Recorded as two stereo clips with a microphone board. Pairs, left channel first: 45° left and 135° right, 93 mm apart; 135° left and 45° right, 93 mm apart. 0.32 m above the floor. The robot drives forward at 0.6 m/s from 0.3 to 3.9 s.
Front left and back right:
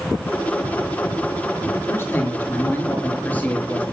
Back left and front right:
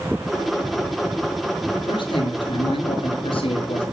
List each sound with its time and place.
1.8 s a man speaking: 110° left, 6 m; by 3.8 s 120° left, 6.5 m